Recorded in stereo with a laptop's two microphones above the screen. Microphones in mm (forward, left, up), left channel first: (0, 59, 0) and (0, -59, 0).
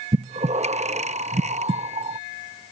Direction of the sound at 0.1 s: 70° right (ahead or behind).